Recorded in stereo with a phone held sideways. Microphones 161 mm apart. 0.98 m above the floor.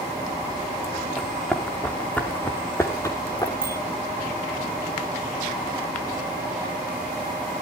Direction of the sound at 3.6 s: 65° right (ahead or behind).